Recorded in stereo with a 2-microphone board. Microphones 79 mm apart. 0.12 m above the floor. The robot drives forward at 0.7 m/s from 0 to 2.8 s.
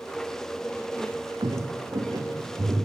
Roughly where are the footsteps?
Right.